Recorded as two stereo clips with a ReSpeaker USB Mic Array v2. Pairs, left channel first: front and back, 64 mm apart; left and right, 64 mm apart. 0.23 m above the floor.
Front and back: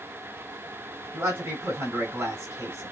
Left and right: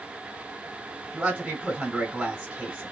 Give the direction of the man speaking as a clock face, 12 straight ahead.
5 o'clock.